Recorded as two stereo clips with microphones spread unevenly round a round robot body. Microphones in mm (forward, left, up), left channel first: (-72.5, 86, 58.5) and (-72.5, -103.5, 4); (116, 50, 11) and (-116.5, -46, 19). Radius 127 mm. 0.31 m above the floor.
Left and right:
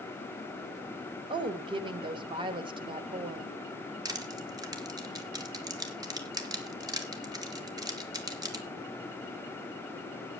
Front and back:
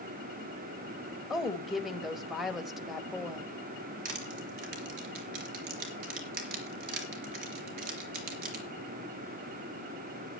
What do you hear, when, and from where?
1.3 s a woman speaking: 65° right, 1.5 m
4.0 s crushing: 155° right, 3.5 m